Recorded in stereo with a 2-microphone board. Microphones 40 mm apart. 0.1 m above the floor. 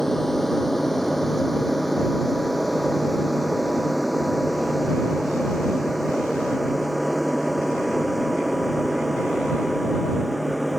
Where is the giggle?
I don't hear a giggle.